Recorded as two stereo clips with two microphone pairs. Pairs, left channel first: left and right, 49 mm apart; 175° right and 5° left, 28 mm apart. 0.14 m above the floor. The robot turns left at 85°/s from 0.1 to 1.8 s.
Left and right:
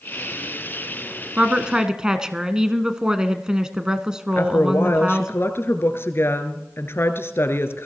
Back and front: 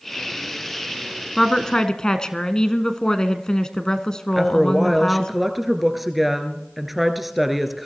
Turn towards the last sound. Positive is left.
turn(degrees=90)